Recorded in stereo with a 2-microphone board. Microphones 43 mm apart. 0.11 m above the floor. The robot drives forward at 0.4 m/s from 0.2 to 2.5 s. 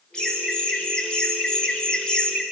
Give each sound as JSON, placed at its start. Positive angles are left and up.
{"t": 0.1, "sound": "laughter", "side_deg": 20, "distance_m": 1.3}